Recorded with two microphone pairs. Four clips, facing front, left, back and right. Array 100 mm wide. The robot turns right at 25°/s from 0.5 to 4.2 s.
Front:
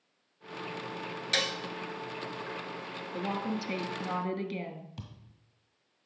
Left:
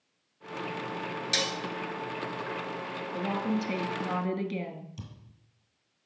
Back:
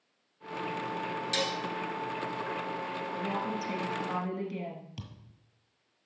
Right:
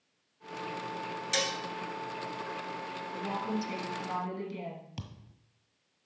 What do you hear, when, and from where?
1.3 s dishes clattering: straight ahead, 1.2 m; by 1.6 s 5° left, 1.2 m
3.1 s a woman speaking: 20° left, 1.5 m; by 4.9 s 45° left, 1.5 m
5.0 s a thud: 90° right, 1.3 m